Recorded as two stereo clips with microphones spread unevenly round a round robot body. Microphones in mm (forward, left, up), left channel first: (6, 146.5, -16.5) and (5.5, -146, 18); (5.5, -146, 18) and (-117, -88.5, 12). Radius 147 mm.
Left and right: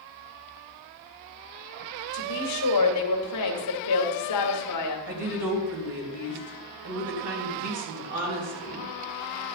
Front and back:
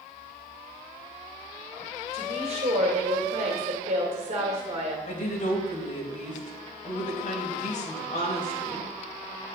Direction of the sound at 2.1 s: 110° left.